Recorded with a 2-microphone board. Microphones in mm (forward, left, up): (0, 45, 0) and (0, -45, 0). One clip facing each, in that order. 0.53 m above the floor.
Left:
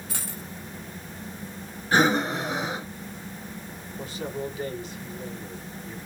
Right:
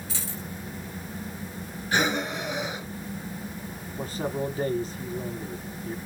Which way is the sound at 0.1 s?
55° left (ahead or behind).